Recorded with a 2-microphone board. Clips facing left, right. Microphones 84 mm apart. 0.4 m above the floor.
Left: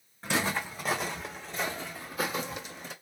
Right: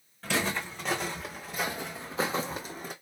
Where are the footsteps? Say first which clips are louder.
Even; 15° left (ahead or behind), 1.7 m; by 2.9 s 50° right (ahead or behind), 1.2 m.